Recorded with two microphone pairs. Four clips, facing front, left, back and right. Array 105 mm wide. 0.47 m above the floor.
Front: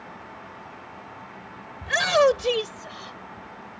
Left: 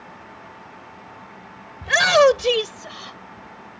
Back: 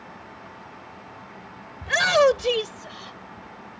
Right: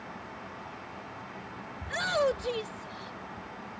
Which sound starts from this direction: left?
A shout, at 1.8 s.